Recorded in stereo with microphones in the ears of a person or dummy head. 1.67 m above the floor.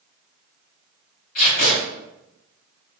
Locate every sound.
1.4 s tape being pulled: 50° left (ahead or behind), 1.6 m